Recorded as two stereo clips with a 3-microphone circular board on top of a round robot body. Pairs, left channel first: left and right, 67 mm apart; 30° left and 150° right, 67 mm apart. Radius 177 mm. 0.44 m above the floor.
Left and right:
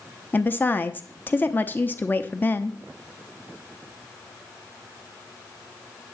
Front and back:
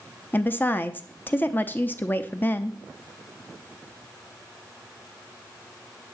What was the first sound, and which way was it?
A woman speaking, 60° left.